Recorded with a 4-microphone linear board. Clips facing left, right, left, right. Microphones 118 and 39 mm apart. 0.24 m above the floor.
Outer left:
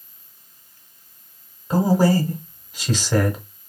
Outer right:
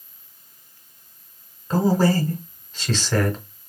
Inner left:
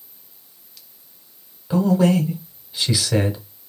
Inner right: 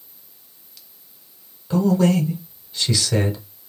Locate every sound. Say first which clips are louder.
1.7 s a man speaking: outer left 1 dB, inner left 1 dB; 15° left (ahead or behind), 1.3 m